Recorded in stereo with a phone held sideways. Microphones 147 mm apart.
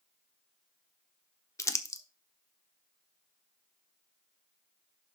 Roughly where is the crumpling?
Left.